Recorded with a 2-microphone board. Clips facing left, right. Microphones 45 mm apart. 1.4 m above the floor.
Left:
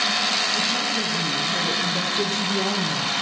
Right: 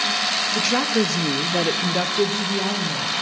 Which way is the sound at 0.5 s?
70° right (ahead or behind).